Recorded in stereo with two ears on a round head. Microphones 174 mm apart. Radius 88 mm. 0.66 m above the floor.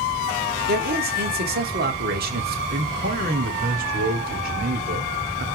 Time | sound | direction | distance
0.7 | a man speaking | 55° right (ahead or behind) | 2 m
2.7 | a man speaking | 50° right (ahead or behind) | 2.5 m